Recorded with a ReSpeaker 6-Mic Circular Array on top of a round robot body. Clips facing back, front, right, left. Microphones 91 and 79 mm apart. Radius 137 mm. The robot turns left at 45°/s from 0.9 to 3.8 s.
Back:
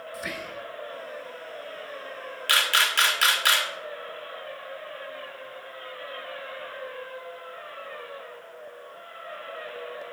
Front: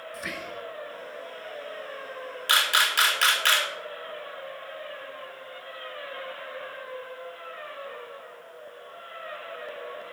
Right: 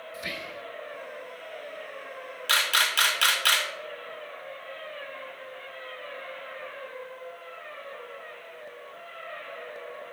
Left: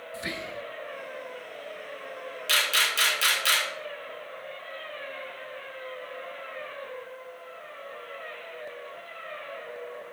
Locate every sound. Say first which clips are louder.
0.1 s whispering: back 1 dB, left 3 dB; 90° left, 0.6 m
2.5 s a camera shutter: even, right 2 dB; 60° right, 2 m; by 3.7 s 115° right, 2 m